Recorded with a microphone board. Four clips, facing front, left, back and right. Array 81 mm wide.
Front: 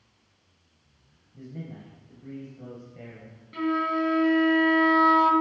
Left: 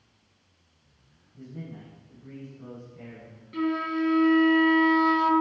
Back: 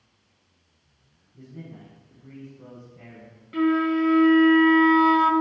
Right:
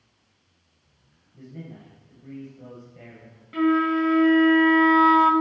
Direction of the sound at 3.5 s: 125° right.